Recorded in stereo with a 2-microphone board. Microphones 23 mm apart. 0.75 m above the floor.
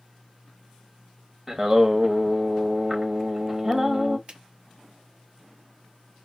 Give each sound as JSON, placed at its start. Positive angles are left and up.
{"t": 1.5, "sound": "singing", "side_deg": -25, "distance_m": 0.8}
{"t": 4.3, "sound": "a finger snap", "side_deg": -55, "distance_m": 1.7}